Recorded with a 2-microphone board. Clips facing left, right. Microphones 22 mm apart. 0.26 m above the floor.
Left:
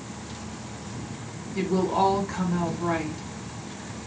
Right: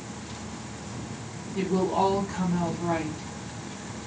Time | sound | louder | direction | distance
1.6 | a woman speaking | left 1 dB | 60° left (ahead or behind) | 4 m